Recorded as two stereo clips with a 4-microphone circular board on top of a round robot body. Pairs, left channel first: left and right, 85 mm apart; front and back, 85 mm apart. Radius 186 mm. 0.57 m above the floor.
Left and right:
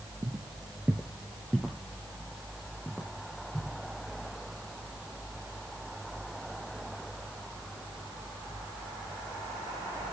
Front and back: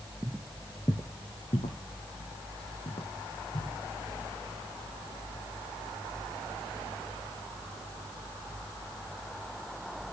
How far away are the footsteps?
About 0.5 m.